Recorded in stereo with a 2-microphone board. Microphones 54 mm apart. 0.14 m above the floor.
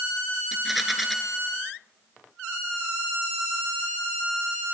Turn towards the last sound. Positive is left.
turn(degrees=-5)  # may be behind; listen again after turning